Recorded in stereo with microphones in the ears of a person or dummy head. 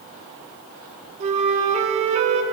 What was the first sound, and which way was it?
A flute, 40° right (ahead or behind).